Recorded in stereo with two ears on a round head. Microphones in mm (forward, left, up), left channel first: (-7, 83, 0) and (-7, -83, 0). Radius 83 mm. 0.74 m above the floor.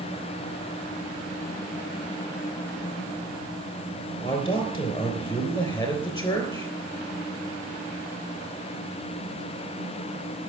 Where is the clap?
I don't hear a clap.